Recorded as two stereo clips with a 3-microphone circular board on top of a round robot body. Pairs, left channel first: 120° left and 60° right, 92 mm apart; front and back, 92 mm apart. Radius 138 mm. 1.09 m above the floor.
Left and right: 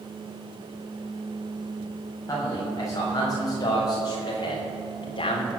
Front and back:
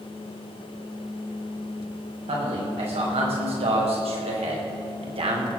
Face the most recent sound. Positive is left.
turn(degrees=155)